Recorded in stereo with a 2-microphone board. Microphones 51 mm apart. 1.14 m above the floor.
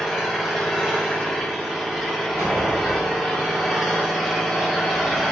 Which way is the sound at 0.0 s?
5° right (ahead or behind).